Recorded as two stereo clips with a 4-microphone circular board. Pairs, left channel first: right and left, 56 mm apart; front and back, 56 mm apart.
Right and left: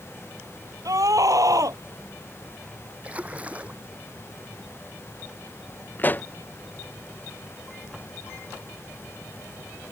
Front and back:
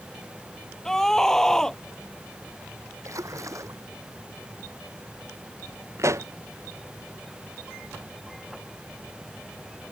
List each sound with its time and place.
0.8 s a scream: 80° left
3.0 s a splash: 155° left
6.0 s a pop: 150° right